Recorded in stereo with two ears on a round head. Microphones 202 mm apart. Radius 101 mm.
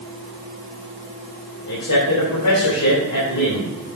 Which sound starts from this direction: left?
A man speaking, at 1.7 s.